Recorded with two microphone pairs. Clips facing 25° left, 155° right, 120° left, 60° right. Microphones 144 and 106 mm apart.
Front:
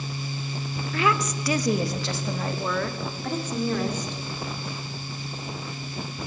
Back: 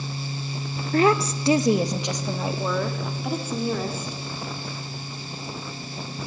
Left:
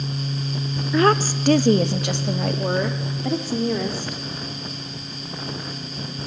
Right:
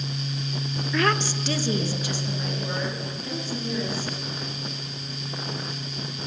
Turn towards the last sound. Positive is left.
turn(degrees=120)